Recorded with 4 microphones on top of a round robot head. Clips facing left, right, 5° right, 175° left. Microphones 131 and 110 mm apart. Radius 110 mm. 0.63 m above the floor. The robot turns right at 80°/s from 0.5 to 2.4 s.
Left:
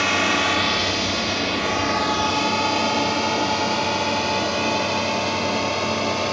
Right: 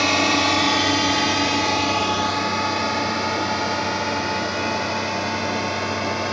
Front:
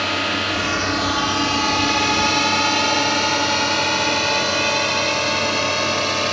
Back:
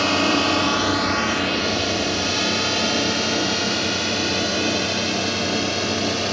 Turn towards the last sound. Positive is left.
turn(degrees=20)